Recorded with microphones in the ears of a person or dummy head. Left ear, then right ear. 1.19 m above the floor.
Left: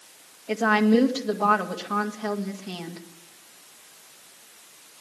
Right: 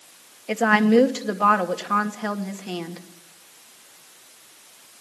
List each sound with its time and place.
0.5 s a woman speaking: 60° right (ahead or behind), 1.9 m